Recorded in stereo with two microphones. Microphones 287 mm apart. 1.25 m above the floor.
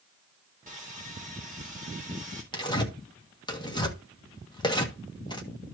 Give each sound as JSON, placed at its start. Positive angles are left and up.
{"t": 0.7, "sound": "sawing", "side_deg": -30, "distance_m": 3.5}
{"t": 2.5, "sound": "tearing paper", "side_deg": 15, "distance_m": 1.6}